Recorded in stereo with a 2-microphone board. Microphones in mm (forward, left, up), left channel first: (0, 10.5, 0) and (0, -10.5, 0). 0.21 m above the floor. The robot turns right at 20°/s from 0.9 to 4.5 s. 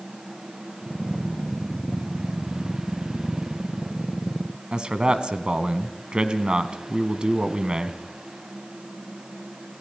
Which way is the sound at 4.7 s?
45° right (ahead or behind).